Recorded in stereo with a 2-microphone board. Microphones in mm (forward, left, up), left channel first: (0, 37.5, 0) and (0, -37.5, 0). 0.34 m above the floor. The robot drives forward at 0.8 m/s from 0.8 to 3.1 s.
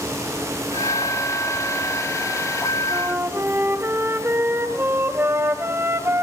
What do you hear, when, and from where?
2.9 s a flute: 30° right (ahead or behind), 1.9 m; by 6.2 s 35° right (ahead or behind), 1.8 m